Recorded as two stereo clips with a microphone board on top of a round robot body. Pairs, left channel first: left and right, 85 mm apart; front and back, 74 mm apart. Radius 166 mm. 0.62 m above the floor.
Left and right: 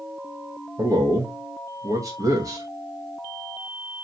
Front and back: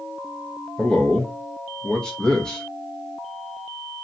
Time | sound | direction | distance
0.8 | a man speaking | 75° right | 1.3 m